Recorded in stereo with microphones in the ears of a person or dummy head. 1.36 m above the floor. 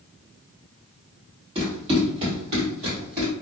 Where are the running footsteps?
40° right (ahead or behind), 1.9 m; by 3.3 s 35° right (ahead or behind), 1.6 m.